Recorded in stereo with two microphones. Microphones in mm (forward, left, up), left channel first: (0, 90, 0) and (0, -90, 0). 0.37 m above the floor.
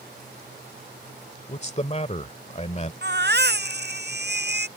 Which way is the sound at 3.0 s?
70° right (ahead or behind).